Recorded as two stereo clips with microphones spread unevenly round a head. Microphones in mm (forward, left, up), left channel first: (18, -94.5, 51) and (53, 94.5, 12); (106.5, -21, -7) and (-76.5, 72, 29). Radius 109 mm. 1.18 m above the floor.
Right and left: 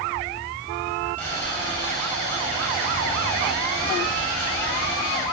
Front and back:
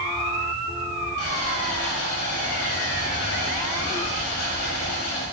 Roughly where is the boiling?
Ahead.